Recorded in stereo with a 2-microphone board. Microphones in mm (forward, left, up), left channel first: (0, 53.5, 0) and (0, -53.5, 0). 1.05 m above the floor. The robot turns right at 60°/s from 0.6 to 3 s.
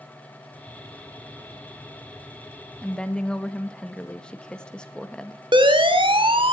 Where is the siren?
55° right (ahead or behind), 2.5 m; by 6.5 s 60° right (ahead or behind), 3 m.